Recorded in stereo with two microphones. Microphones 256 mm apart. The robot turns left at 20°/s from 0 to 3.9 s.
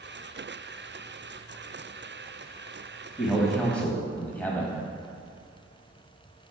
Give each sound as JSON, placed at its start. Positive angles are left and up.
{"t": 3.2, "sound": "a man speaking", "side_deg": -5, "distance_m": 1.3}